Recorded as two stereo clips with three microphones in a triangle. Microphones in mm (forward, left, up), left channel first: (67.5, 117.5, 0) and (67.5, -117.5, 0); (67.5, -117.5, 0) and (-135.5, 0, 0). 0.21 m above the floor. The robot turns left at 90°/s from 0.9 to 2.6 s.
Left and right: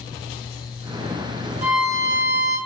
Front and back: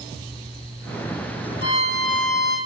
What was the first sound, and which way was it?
A violin, 175° right.